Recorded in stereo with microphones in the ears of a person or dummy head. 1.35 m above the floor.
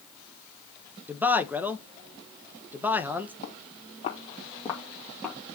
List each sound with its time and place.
1.1 s a man speaking: 5° right (ahead or behind), 1.3 m
3.4 s footsteps: 50° left (ahead or behind), 3.5 m; by 5.4 s centre (ahead or behind), 3 m